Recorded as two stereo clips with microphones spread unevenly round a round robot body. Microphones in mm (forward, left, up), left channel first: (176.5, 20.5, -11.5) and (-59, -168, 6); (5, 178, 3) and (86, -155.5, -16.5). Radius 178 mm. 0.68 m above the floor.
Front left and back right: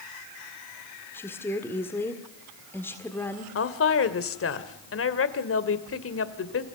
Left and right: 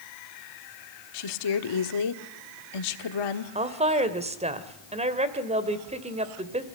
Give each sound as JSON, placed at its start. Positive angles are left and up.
{"t": 1.1, "sound": "a woman speaking", "azimuth_deg": 120, "distance_m": 1.6}
{"t": 3.5, "sound": "a woman speaking", "azimuth_deg": -5, "distance_m": 2.0}